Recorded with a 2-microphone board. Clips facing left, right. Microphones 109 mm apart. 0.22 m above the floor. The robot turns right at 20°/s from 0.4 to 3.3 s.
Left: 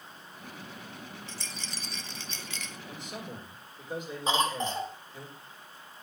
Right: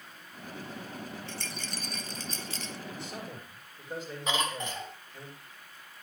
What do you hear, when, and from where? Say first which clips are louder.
1.3 s a rattle: right 3 dB; 65° right (ahead or behind), 1.2 m; by 2.8 s 35° right (ahead or behind), 1.2 m
2.9 s a man speaking: even; 25° left (ahead or behind), 8 m; by 5.3 s 15° left (ahead or behind), 8 m
4.3 s a cough: left 4 dB; 35° left (ahead or behind), 1.4 m